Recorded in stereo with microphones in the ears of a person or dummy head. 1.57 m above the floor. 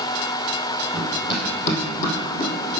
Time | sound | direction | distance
0.9 | running footsteps | 25° left (ahead or behind) | 2 m